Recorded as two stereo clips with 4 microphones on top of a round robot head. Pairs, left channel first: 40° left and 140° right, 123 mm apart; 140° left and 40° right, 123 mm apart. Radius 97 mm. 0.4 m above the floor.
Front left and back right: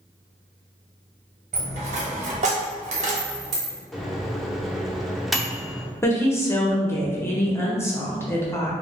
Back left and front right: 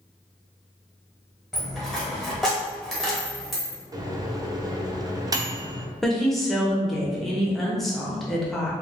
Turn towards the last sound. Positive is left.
turn(degrees=55)